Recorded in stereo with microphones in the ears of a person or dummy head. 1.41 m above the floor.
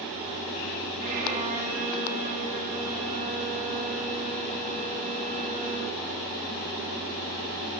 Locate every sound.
1.0 s a violin: 45° right (ahead or behind), 5.5 m